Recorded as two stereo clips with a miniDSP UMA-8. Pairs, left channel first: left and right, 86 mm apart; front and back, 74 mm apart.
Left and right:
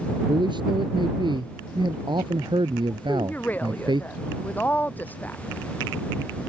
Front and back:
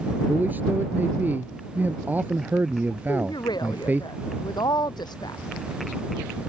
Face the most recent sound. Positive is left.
turn(degrees=20)